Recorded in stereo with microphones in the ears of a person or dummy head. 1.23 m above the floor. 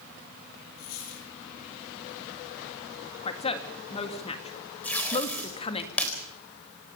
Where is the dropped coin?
80° left, 9 m.